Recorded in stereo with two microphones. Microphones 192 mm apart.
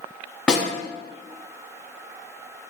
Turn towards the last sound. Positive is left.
turn(degrees=5)  # may be behind; listen again after turning